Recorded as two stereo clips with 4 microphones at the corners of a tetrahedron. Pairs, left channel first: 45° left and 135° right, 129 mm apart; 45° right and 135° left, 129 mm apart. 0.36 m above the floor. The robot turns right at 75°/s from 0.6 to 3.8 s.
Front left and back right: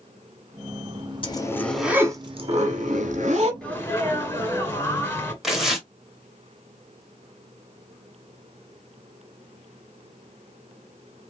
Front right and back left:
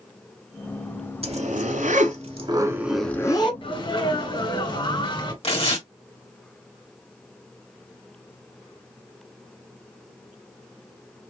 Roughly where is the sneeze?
Ahead right.